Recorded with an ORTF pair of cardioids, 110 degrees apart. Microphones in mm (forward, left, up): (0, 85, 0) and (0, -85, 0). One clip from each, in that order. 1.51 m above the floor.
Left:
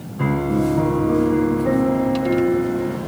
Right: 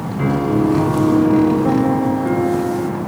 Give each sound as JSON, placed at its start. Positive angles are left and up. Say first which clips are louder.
{"t": 0.2, "sound": "a piano", "louder": "right 3 dB", "azimuth_deg": -30, "distance_m": 2.5}